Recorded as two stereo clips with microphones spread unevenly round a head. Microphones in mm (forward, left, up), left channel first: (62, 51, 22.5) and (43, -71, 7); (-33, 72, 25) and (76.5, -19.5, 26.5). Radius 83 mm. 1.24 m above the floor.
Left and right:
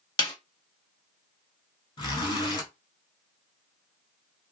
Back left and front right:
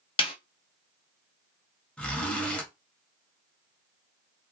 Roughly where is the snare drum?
Left.